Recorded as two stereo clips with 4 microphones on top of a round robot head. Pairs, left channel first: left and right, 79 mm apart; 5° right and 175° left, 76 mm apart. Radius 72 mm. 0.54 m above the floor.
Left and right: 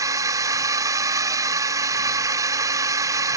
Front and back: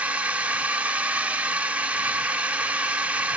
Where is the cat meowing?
I don't hear a cat meowing.